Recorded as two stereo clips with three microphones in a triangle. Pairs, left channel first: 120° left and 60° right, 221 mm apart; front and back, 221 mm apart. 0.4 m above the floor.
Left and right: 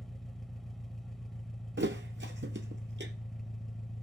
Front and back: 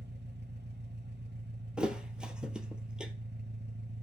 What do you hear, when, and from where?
0.0 s an engine running: 150° right, 0.9 m
1.8 s a thud: 95° right, 1.2 m